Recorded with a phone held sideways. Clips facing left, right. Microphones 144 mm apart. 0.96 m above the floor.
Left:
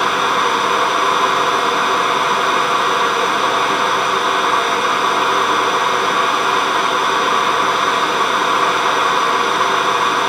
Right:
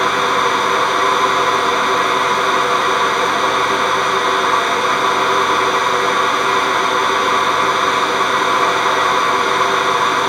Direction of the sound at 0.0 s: 5° left (ahead or behind).